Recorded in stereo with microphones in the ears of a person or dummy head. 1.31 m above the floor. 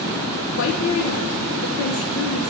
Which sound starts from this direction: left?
A woman speaking, at 0.6 s.